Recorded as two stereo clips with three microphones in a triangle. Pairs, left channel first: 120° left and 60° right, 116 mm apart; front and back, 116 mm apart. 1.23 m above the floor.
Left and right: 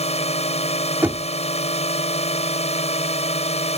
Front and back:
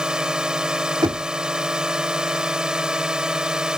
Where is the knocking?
130° right.